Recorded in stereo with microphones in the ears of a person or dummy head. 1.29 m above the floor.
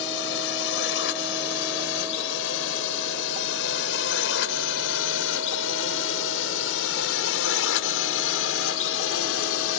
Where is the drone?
75° left (ahead or behind).